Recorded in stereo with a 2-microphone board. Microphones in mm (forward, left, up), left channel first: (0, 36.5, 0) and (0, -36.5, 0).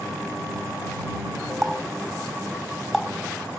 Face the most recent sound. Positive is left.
turn(degrees=5)  # may be behind; listen again after turning